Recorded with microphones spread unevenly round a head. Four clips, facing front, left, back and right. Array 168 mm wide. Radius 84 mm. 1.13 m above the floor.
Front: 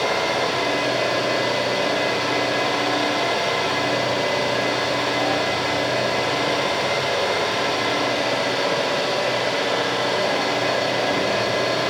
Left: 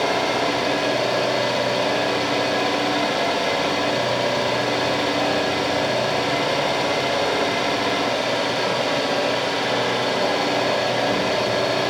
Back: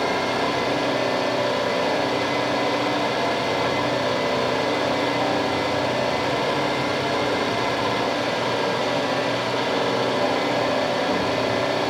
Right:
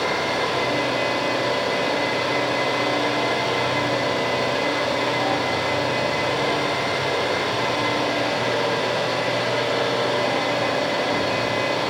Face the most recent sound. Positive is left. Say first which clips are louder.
# left 2 dB, front 1 dB
turn(degrees=110)